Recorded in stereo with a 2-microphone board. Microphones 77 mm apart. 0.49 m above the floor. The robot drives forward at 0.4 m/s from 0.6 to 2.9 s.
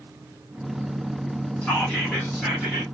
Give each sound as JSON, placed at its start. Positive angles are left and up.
{"t": 1.6, "sound": "whispering", "side_deg": 15, "distance_m": 1.6}